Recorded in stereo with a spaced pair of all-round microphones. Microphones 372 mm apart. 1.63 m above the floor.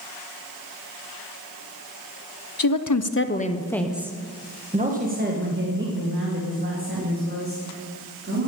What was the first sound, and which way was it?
A woman speaking, 65° left (ahead or behind).